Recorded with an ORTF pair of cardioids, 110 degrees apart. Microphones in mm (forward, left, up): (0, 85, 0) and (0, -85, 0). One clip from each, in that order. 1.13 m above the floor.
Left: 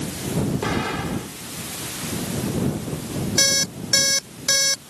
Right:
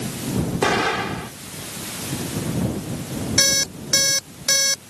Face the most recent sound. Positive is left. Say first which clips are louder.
# right 1 dB
turn(degrees=-5)